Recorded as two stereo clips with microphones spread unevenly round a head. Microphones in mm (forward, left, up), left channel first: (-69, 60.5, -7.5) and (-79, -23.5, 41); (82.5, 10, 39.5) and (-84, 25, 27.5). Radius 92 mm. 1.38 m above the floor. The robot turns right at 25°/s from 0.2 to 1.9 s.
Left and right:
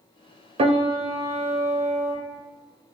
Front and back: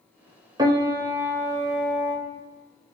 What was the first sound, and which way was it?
A piano, 125° right.